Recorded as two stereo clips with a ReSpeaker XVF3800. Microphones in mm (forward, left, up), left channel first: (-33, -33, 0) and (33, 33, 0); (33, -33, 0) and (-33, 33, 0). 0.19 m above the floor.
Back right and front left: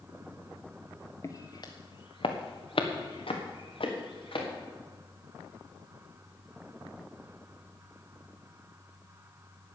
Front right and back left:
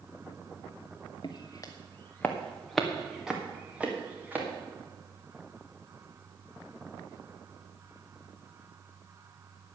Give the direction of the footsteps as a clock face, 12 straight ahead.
3 o'clock.